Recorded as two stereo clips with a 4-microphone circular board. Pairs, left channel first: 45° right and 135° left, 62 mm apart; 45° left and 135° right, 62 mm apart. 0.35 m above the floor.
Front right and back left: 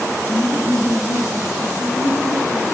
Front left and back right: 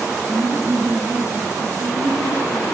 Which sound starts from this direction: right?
Laughter, at 0.3 s.